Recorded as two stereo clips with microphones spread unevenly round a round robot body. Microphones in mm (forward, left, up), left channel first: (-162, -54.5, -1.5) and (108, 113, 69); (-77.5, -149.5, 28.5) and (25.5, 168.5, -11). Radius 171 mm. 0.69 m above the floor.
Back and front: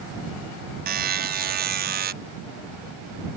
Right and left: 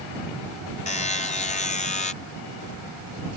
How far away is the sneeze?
I don't hear a sneeze.